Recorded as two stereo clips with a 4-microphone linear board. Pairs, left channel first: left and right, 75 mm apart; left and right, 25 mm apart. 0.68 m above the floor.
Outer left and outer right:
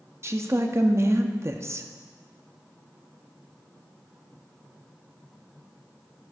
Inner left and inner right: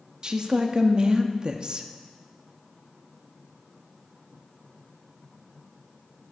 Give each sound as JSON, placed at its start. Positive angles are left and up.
{"t": 0.2, "sound": "a woman speaking", "side_deg": -40, "distance_m": 0.6}